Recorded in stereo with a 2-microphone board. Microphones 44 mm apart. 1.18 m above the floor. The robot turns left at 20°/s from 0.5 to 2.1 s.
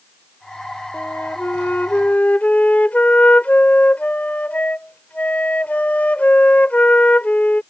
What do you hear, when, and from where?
0.9 s a flute: 60° left (ahead or behind); by 7.6 s 35° left (ahead or behind)